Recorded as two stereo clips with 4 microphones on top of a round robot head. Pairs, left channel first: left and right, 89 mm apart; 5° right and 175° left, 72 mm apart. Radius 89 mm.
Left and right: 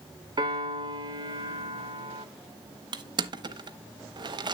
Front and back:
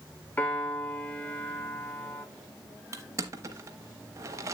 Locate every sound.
0.4 s a piano: 65° right, 1.7 m
2.9 s crushing: 130° right, 0.9 m